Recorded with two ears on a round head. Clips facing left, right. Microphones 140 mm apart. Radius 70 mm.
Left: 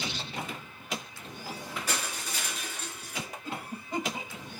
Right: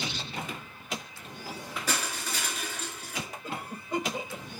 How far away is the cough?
About 7 m.